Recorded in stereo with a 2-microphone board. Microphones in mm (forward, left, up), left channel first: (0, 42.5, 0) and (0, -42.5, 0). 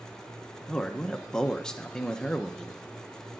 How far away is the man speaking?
About 0.6 m.